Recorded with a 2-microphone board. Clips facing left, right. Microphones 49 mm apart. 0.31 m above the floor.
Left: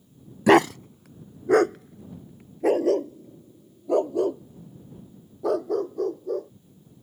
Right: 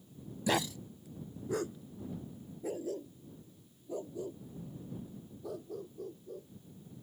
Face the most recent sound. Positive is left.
turn(degrees=65)  # may be behind; listen again after turning